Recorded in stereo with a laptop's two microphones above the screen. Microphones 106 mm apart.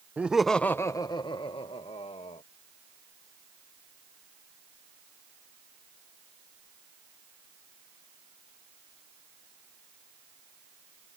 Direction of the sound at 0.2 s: 15° right (ahead or behind).